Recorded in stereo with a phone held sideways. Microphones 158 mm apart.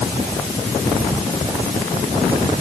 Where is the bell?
I don't hear a bell.